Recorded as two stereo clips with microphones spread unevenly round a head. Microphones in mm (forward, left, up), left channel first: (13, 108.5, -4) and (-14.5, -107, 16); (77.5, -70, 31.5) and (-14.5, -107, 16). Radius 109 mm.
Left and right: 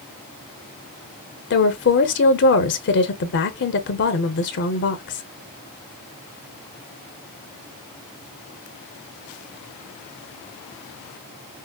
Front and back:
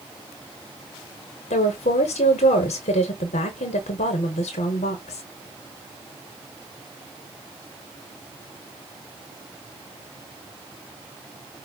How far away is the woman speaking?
About 0.7 m.